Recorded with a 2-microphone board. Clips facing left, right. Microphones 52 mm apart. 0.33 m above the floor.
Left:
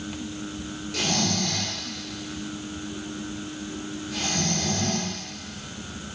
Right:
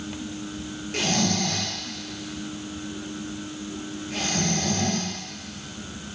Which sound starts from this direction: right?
Snoring, at 0.9 s.